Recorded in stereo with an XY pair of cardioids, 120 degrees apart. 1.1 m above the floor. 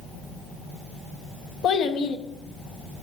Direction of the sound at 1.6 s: 65° left.